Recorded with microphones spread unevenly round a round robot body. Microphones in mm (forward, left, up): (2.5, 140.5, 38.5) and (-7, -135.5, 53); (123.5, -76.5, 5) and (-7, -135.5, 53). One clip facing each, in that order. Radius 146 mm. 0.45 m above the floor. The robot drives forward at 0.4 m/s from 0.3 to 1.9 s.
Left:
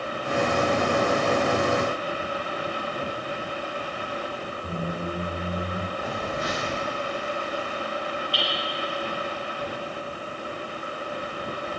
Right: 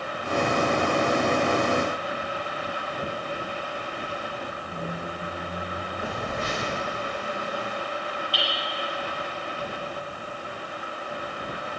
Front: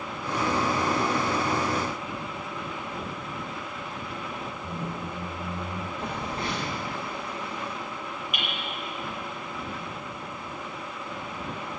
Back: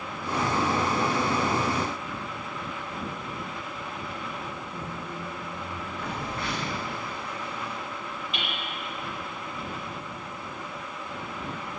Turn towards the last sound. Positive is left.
turn(degrees=-95)